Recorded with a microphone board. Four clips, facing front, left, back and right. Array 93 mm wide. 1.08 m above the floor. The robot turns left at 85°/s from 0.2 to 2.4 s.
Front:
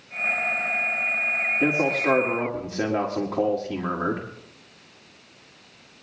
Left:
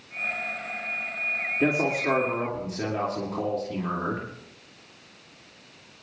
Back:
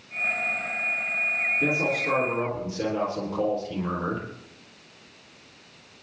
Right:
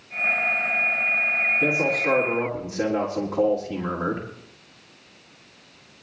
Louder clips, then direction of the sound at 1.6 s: Left 2 dB, front 5 dB; 50° left.